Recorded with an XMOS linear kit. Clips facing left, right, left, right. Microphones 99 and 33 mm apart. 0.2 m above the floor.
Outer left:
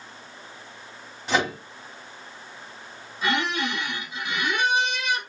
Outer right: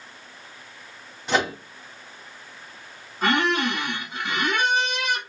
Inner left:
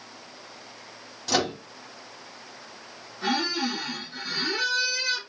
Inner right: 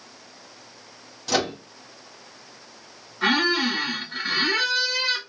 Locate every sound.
1.3 s a microwave: centre (ahead or behind), 1.2 m
3.2 s a squeak: 55° right (ahead or behind), 1.2 m